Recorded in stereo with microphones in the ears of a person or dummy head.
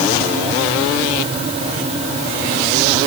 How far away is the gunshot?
No gunshot in this recording.